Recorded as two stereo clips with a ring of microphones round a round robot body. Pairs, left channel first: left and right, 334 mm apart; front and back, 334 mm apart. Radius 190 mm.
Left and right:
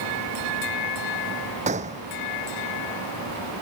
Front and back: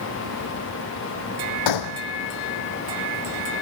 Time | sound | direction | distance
1.7 | a gunshot | 15° right | ?